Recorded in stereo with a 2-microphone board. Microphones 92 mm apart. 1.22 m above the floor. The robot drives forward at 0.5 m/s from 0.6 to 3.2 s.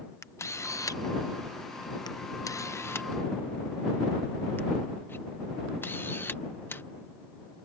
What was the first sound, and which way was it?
A camera shutter, 30° left (ahead or behind).